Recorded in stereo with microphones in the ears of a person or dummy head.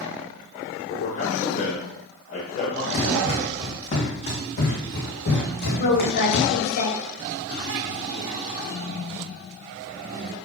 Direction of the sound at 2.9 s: 40° left (ahead or behind).